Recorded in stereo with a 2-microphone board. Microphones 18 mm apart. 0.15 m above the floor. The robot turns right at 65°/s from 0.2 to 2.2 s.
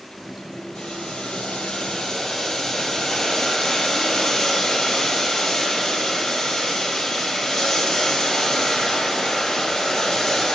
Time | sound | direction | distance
0.8 | boiling | 50° left | 4 m